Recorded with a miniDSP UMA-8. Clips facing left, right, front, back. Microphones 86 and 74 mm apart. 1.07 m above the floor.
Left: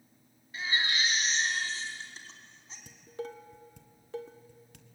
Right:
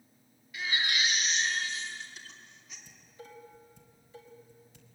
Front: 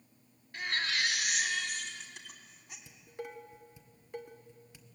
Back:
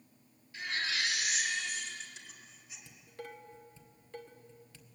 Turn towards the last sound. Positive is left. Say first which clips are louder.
# left 12 dB, front 3 dB
turn(degrees=75)